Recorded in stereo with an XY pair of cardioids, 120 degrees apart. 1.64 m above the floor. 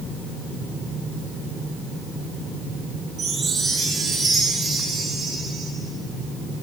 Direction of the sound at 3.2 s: 40° right.